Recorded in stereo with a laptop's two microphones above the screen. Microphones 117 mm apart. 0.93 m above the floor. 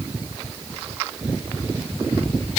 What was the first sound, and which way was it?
Only background noise.